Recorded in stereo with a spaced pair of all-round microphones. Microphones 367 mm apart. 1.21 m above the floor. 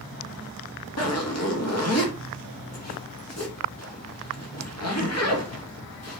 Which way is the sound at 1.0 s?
45° left (ahead or behind).